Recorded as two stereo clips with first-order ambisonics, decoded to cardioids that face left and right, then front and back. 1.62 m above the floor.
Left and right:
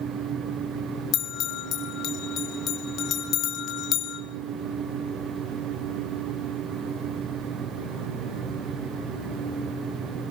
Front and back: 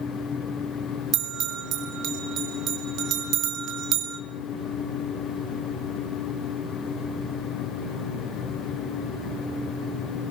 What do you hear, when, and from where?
1.1 s a bell: 140° left, 3 m